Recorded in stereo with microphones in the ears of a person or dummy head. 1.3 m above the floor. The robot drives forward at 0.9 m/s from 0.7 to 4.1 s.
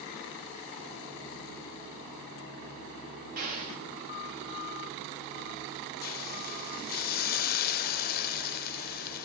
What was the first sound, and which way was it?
An explosion, 45° right (ahead or behind).